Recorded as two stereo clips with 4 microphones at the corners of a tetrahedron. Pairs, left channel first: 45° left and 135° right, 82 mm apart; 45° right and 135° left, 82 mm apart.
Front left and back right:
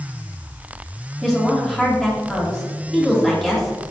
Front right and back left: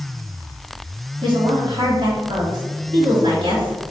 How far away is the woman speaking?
About 3 m.